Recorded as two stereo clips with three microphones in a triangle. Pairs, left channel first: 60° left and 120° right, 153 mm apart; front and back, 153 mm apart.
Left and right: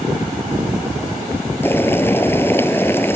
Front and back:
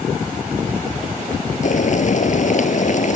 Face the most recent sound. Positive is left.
turn(degrees=-15)